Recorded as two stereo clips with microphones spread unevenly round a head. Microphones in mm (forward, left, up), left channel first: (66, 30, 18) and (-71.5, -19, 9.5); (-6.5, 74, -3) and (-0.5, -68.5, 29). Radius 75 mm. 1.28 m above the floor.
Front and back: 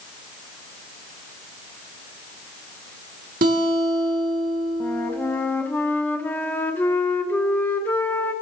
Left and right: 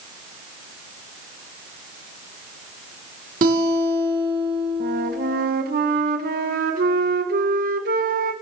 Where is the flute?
60° right, 0.8 m.